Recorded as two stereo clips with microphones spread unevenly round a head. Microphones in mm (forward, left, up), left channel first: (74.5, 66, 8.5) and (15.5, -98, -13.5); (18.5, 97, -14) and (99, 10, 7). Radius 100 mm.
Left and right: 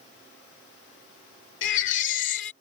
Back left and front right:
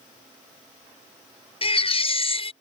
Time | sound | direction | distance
1.6 | a baby crying | 95° left | ?